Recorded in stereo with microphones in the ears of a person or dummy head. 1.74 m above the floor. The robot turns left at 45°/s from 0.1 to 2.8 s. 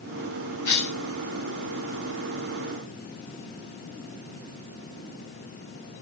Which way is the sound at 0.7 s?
25° left (ahead or behind).